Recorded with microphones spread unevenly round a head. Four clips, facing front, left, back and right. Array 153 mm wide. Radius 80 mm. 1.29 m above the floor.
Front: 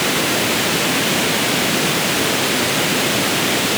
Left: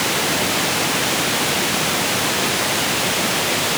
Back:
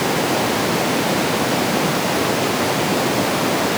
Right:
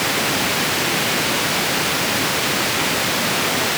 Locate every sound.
Only background noise.